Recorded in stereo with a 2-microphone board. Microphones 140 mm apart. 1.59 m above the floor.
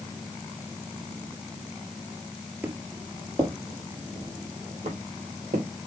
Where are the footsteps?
15° right (ahead or behind), 2 m; by 5.7 s 65° right (ahead or behind), 5 m.